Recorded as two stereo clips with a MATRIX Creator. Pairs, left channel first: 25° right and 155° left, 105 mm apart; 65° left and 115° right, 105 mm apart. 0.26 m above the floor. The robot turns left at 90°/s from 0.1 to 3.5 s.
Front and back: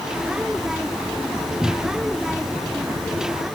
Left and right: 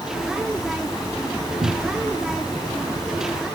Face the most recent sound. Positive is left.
turn(degrees=80)